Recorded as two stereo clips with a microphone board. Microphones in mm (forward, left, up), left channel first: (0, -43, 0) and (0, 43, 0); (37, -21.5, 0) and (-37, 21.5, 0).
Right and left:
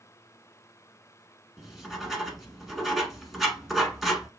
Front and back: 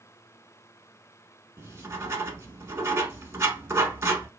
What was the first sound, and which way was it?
Writing, 175° left.